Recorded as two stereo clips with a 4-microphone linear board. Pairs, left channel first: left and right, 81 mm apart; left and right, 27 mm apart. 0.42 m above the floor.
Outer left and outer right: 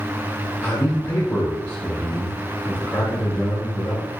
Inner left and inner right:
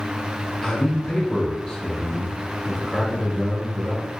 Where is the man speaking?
20° left (ahead or behind), 4.5 m.